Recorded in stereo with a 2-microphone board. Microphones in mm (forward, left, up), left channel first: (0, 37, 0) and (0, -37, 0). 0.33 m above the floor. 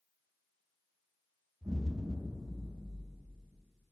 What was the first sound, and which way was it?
An explosion, 40° right (ahead or behind).